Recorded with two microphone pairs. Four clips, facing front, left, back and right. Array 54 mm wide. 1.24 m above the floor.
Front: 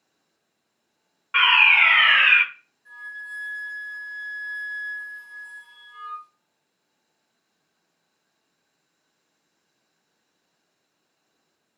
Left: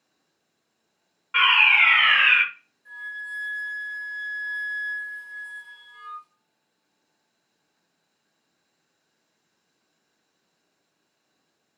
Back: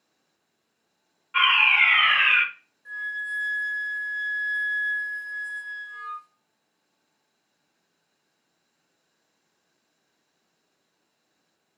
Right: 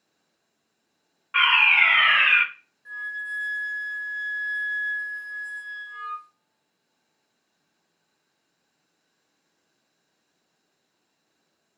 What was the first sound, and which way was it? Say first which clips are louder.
A fire alarm: left 1 dB, front 3 dB; 15° right.